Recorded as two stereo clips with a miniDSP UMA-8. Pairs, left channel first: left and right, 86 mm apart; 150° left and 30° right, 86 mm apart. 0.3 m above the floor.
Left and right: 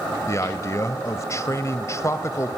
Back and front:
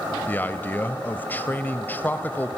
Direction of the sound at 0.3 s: 100° left.